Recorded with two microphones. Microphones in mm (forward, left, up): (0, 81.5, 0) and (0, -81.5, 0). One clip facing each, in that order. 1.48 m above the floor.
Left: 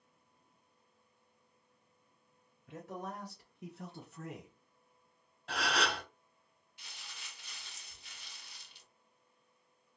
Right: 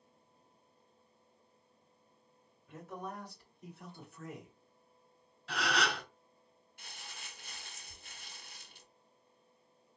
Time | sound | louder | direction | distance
2.7 | a man speaking | left 1 dB | 85° left | 2 m
5.5 | a gasp | even | 50° left (ahead or behind) | 2.5 m
6.8 | crumpling | right 3 dB | 50° right (ahead or behind) | 0.6 m